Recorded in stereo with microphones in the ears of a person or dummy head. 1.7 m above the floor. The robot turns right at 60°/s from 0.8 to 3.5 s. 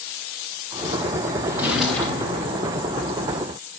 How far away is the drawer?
About 2.5 m.